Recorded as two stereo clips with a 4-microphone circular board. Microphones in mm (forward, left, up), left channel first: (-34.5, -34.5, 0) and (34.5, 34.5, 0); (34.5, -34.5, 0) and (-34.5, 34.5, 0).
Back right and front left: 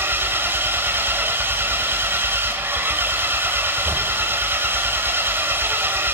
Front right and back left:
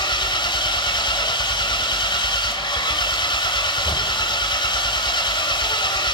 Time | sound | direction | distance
0.0 | an engine running | 20° right | 1.8 m